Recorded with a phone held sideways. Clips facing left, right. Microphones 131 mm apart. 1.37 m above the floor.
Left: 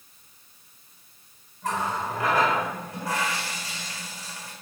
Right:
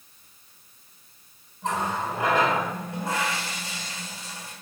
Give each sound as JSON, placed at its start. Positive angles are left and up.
{"t": 1.6, "sound": "a running tap", "side_deg": -25, "distance_m": 3.5}